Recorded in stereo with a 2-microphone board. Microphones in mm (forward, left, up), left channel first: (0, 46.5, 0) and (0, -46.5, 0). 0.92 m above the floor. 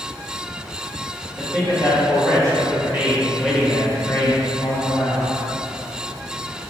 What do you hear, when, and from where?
1.4 s a man speaking: 45° right (ahead or behind), 1.6 m; by 5.3 s 50° left (ahead or behind), 1.2 m